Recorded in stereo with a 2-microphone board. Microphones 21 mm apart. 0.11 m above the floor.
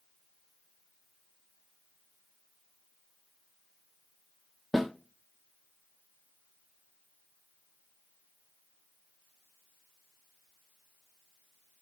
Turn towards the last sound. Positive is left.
turn(degrees=0)  # may be behind; listen again after turning